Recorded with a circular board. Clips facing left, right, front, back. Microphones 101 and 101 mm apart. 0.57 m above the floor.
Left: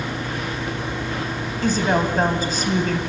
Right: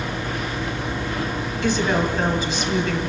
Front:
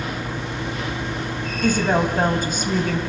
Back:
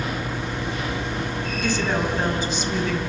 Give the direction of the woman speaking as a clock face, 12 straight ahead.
11 o'clock.